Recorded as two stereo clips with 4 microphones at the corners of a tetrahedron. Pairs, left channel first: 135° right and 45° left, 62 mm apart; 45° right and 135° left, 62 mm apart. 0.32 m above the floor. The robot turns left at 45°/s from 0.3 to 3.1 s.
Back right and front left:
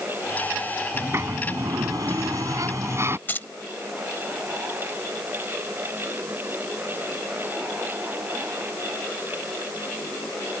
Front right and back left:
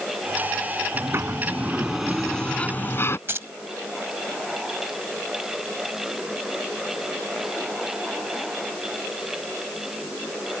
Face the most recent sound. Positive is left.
turn(degrees=175)